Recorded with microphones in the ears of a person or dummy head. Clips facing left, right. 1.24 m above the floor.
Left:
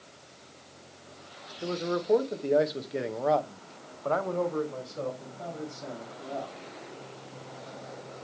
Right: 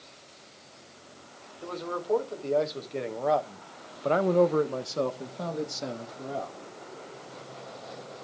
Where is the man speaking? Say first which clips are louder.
Left 4 dB; 30° left (ahead or behind), 1.6 m; by 6.6 s 75° right (ahead or behind), 1.5 m.